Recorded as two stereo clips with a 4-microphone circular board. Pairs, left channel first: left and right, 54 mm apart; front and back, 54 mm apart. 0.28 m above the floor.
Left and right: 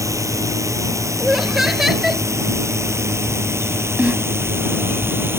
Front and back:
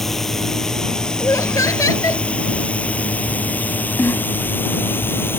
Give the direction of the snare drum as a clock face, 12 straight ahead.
1 o'clock.